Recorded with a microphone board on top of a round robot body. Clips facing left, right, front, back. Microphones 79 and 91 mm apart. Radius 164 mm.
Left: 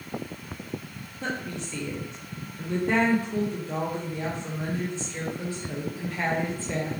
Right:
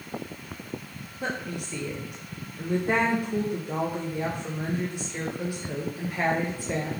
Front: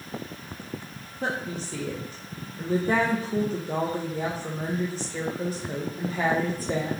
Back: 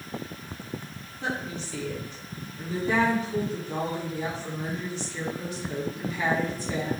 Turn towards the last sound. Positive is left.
turn(degrees=-20)